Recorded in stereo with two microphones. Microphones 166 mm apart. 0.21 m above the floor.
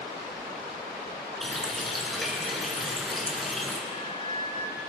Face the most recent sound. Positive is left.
turn(degrees=55)  # may be behind; listen again after turning